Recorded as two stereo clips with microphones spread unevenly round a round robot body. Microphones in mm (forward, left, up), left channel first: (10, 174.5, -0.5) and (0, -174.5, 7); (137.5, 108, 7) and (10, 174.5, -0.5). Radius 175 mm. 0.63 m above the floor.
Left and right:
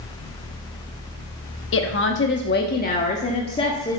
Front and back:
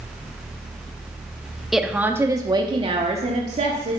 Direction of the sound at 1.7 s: 70° left.